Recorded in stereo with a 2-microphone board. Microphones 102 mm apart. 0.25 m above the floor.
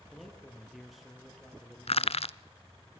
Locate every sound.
0.1 s a man speaking: centre (ahead or behind), 6.5 m
1.9 s crushing: 80° left, 0.8 m